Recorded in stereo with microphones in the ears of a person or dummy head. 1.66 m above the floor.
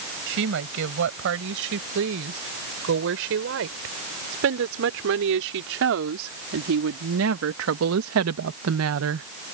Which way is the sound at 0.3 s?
65° right (ahead or behind).